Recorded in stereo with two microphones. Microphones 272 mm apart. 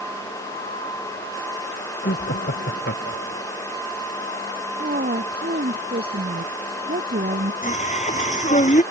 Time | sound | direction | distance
2.0 | laughter | 45° left (ahead or behind) | ?
4.8 | a woman speaking | 35° right (ahead or behind) | ?
7.6 | singing | 25° left (ahead or behind) | ?